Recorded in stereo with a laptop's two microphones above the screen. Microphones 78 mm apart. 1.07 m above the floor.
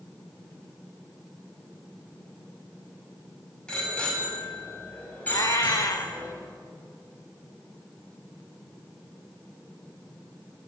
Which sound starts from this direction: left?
A cat meowing, at 5.3 s.